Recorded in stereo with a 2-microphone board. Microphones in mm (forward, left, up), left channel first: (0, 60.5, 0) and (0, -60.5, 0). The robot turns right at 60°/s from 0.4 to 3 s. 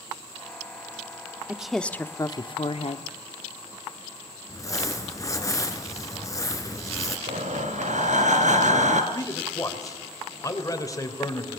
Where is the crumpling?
25° left (ahead or behind), 2.5 m.